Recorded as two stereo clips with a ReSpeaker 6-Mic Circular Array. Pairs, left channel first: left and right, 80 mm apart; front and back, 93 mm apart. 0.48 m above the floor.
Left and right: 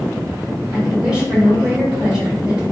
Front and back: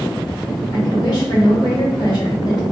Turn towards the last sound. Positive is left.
turn(degrees=-15)